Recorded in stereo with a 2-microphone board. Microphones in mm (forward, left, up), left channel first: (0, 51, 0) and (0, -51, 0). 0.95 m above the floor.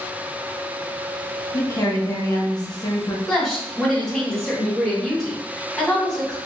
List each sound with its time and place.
1.5 s a woman speaking: 40° left (ahead or behind), 1.1 m
3.3 s a woman speaking: 10° left (ahead or behind), 1.7 m